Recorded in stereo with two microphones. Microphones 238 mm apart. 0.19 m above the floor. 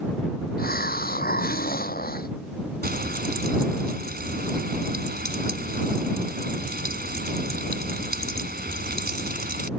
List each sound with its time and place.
0.6 s a hiss: 40° left (ahead or behind)
2.8 s frying: 40° right (ahead or behind)